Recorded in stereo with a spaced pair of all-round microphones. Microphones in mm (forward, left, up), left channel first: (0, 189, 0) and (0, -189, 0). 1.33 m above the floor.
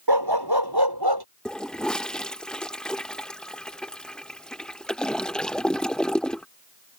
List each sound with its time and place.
0.1 s a dog barking: 80° right
1.4 s a toilet flushing: centre (ahead or behind)